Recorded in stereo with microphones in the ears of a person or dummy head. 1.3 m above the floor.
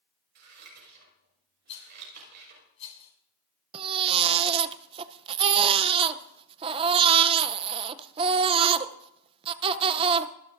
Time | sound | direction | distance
0.3 | scissors | 60° right (ahead or behind) | 5 m
1.7 | a rattle | 35° left (ahead or behind) | 6 m
3.7 | a baby crying | 30° right (ahead or behind) | 0.5 m